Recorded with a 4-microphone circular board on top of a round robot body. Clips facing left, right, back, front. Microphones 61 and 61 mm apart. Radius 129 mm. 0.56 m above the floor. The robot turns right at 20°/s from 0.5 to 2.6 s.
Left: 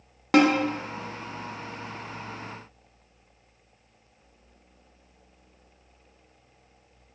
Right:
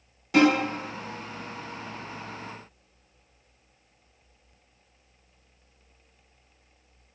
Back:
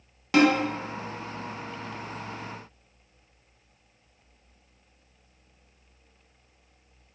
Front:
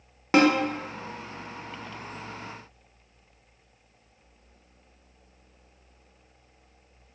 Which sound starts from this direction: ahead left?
A snare drum, at 0.3 s.